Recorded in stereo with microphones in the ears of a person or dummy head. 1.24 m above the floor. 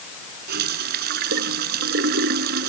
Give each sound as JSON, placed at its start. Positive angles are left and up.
{"t": 0.5, "sound": "a running tap", "side_deg": -65}